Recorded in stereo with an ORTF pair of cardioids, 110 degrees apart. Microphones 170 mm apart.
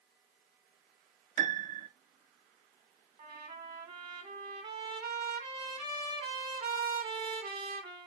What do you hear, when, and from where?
1.4 s a piano: 50° right, 1.7 m
3.2 s a trumpet: 30° right, 3 m